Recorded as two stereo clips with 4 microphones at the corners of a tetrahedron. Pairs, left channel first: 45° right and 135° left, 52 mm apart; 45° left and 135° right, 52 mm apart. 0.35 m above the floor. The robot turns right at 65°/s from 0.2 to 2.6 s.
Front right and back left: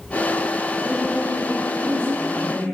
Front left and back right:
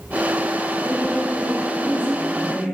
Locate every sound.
0.8 s a woman speaking: straight behind, 1.4 m; by 2.6 s 65° right, 1.4 m